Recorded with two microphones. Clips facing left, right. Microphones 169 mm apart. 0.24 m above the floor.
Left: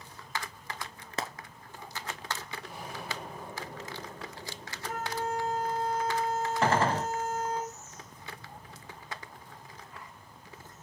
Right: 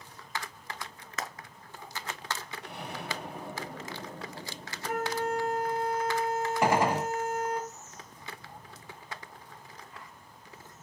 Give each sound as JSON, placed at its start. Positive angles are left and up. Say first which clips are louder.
{"t": 1.2, "sound": "frying", "louder": "left 2 dB", "side_deg": 30, "distance_m": 1.1}
{"t": 2.6, "sound": "an explosion", "louder": "right 4 dB", "side_deg": -70, "distance_m": 5.5}
{"t": 4.9, "sound": "a flute", "louder": "right 3 dB", "side_deg": -70, "distance_m": 2.5}
{"t": 6.6, "sound": "a gunshot", "louder": "right 1 dB", "side_deg": -15, "distance_m": 0.9}